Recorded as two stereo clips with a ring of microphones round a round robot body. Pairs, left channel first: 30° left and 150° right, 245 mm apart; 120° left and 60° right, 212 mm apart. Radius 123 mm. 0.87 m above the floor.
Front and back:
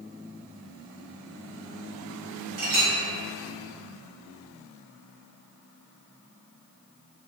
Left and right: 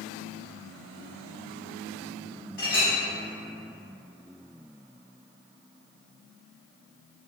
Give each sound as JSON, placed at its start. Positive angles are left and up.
{"t": 2.6, "sound": "a clink", "azimuth_deg": -160, "distance_m": 1.4}